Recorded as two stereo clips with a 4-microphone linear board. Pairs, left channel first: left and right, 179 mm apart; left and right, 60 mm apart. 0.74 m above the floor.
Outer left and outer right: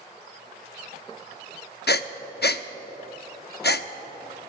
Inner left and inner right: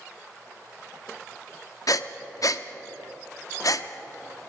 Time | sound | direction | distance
1.9 | breathing | 65° left (ahead or behind) | 0.6 m